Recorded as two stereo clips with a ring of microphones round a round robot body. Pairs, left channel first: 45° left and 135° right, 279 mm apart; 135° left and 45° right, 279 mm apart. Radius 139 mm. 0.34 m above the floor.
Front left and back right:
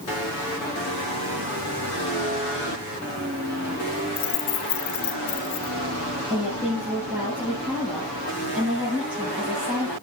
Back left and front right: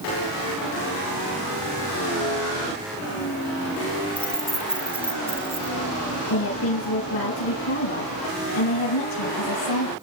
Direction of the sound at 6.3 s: 140° left.